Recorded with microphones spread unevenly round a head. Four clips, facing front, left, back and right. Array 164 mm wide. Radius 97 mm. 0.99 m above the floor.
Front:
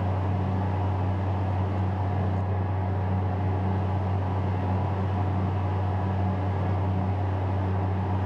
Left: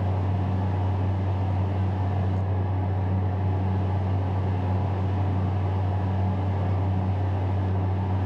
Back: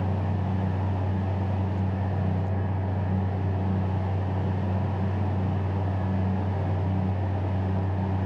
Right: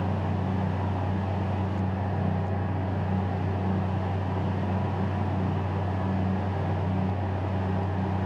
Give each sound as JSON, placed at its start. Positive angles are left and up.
{"t": 0.0, "sound": "a fan", "azimuth_deg": -10, "distance_m": 1.7}